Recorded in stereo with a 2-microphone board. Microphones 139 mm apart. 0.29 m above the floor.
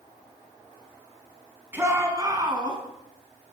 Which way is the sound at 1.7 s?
15° right (ahead or behind).